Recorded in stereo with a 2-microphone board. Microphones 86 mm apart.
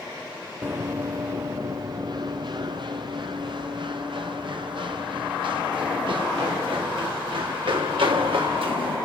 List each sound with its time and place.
0.6 s running footsteps: 25° right (ahead or behind), 0.8 m; by 8.9 s 75° right (ahead or behind), 5.5 m